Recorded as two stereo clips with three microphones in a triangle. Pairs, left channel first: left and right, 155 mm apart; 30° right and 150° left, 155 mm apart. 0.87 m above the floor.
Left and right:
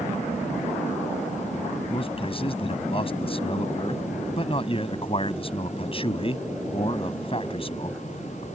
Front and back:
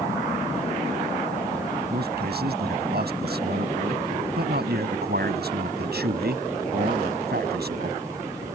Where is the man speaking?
145° left.